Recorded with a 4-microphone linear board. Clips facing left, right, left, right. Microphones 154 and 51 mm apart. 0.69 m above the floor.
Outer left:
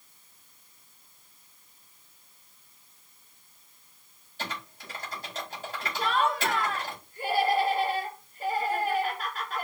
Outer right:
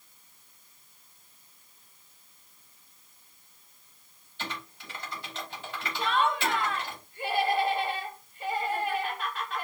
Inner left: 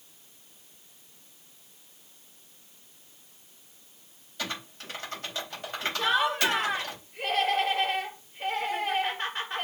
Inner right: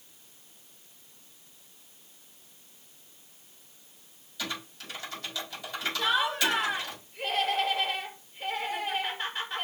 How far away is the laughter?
About 5 m.